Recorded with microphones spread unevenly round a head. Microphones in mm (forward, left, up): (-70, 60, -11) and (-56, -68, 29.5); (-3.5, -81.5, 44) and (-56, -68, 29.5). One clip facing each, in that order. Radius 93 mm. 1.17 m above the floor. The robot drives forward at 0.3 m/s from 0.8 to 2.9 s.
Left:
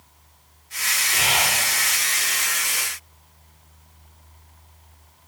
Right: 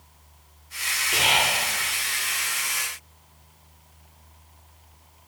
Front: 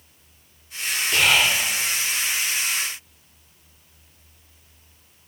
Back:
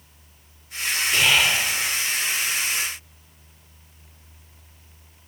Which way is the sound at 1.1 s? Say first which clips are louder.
Right 1 dB, front 1 dB; 50° right.